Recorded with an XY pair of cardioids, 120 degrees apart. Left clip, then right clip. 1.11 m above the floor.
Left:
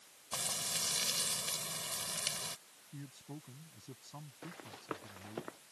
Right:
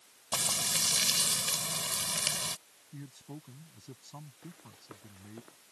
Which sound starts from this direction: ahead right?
Frying, at 0.3 s.